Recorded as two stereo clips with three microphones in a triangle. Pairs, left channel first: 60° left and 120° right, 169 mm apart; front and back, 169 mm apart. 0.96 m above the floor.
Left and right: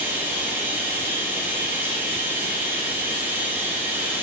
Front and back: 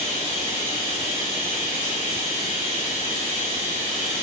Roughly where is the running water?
Ahead right.